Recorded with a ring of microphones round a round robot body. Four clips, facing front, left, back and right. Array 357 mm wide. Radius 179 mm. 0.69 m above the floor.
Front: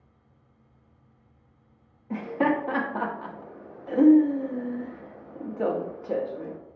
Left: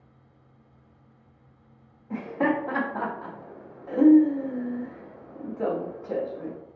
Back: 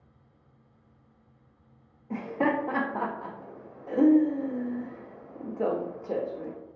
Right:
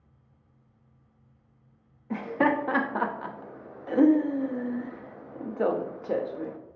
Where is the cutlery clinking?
I don't hear cutlery clinking.